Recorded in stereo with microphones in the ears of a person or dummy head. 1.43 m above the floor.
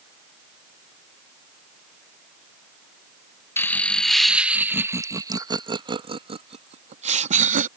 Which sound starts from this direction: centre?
Laughter, at 3.6 s.